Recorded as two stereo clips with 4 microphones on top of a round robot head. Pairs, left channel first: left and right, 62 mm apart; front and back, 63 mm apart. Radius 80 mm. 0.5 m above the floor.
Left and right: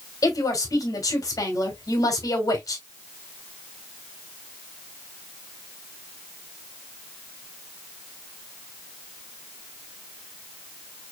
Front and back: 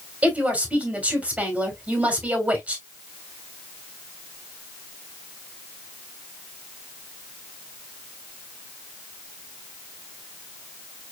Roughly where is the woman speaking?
Left.